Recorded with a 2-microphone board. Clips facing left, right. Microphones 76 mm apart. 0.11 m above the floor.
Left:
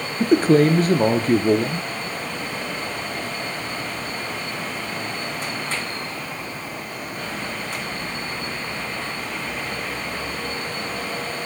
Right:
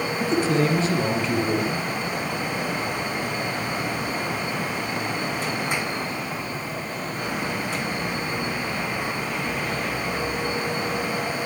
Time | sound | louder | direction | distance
0.2 | a man speaking | left 7 dB | 45° left (ahead or behind) | 2.5 m